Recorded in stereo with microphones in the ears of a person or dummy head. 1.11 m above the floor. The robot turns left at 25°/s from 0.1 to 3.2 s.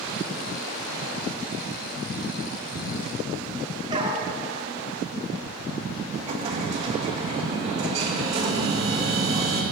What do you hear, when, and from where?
3.9 s a dog barking: 25° right (ahead or behind), 2.5 m
6.1 s an explosion: 35° right (ahead or behind), 1.8 m